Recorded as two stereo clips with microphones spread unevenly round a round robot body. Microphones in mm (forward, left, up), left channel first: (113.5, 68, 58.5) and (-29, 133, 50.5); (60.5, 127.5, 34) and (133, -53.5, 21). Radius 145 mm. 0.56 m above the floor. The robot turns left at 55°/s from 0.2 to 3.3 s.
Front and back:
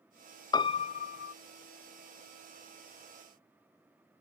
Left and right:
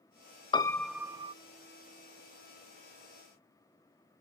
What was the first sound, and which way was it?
A piano, 45° left.